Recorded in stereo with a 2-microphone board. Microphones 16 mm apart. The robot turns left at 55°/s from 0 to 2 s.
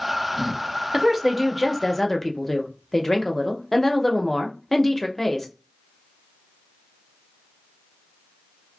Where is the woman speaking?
155° right, 0.5 m; by 5.5 s 145° left, 0.5 m.